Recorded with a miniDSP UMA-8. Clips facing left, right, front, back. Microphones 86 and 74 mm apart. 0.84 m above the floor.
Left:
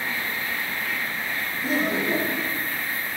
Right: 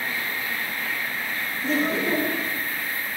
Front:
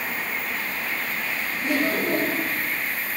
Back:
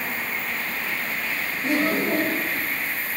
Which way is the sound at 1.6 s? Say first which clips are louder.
Right 1 dB, back 1 dB; 165° left.